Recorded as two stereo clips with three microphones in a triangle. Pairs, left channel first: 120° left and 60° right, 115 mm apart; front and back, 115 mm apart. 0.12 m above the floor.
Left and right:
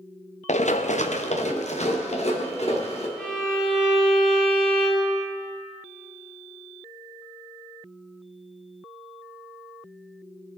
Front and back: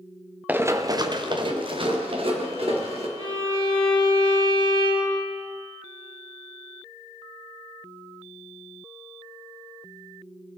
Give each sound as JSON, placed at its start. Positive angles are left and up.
{"t": 0.5, "sound": "running footsteps", "azimuth_deg": 105, "distance_m": 0.9}
{"t": 3.2, "sound": "a violin", "azimuth_deg": -160, "distance_m": 5.5}